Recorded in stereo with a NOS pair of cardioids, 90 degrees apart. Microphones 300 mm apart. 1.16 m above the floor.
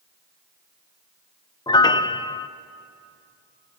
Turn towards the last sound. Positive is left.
turn(degrees=15)